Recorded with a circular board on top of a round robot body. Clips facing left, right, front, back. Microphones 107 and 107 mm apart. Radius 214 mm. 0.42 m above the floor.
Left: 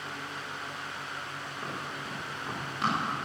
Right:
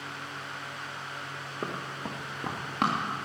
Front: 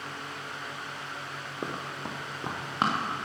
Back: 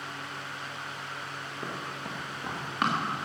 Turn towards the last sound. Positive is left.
turn(degrees=-65)